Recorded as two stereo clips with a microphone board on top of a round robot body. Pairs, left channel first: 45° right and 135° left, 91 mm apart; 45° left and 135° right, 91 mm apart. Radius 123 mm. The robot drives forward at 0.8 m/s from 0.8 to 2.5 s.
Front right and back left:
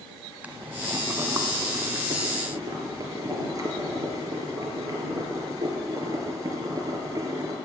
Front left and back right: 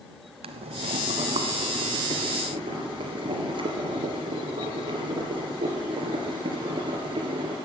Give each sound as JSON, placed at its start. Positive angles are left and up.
{"t": 0.4, "sound": "boiling", "azimuth_deg": -150, "distance_m": 0.6}